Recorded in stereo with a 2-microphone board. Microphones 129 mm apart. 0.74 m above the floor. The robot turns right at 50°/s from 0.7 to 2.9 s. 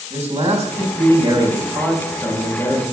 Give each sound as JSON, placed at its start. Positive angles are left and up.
{"t": 0.1, "sound": "a man speaking", "azimuth_deg": -60, "distance_m": 4.5}